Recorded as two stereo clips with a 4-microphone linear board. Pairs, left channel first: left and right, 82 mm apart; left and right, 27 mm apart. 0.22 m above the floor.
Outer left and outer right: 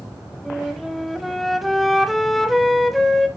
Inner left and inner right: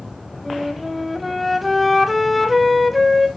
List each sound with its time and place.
0.5 s a flute: centre (ahead or behind), 0.7 m